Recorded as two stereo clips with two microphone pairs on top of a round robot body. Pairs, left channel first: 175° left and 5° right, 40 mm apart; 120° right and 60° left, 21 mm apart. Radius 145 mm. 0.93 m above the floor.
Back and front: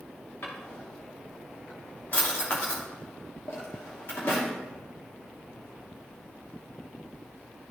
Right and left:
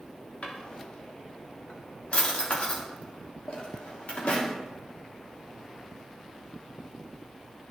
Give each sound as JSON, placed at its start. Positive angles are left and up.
{"t": 0.4, "sound": "a drawer", "azimuth_deg": -145, "distance_m": 0.9}